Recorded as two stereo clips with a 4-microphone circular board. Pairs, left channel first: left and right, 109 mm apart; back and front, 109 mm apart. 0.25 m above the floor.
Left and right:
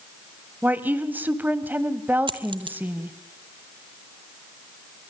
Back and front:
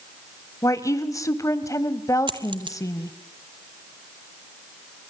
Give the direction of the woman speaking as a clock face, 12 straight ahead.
5 o'clock.